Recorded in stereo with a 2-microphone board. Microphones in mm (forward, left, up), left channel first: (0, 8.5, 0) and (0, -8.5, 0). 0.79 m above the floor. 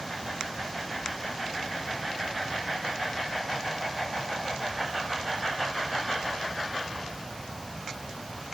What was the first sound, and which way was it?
Only background noise.